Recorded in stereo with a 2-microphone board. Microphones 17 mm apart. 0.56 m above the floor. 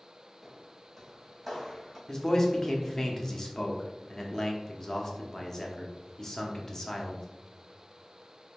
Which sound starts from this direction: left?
A man speaking, at 2.1 s.